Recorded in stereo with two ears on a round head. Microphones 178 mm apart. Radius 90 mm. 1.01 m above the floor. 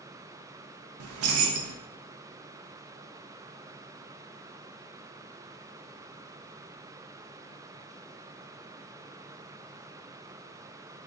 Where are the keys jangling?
90° right, 0.5 m.